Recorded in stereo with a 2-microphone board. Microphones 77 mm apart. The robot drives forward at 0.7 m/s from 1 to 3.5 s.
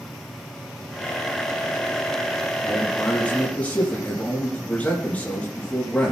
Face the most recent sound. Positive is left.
turn(degrees=20)  # may be behind; listen again after turning